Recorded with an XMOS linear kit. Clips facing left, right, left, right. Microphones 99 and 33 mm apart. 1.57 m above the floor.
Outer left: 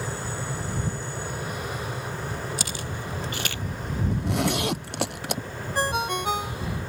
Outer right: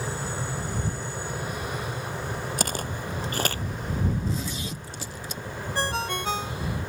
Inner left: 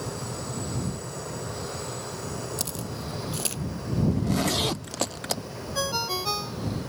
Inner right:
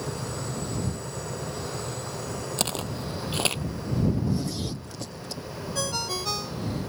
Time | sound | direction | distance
2.6 | footsteps | 50° right (ahead or behind) | ?
4.1 | a zipper | 70° left (ahead or behind) | ?
5.8 | a ringtone | 15° left (ahead or behind) | ?